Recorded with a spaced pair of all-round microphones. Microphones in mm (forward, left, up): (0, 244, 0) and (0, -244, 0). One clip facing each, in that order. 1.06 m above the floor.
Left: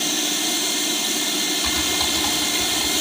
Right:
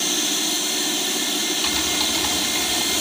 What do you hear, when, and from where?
1.6 s typing on a keyboard: 65° left (ahead or behind), 7.5 m